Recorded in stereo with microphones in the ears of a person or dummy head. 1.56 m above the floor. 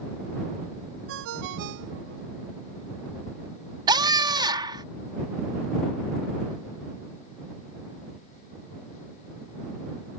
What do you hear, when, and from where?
1.1 s a ringtone: 65° right (ahead or behind)
3.9 s a scream: 30° right (ahead or behind)